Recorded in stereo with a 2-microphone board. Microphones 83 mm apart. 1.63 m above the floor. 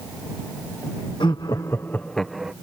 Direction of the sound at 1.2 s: 70° left (ahead or behind).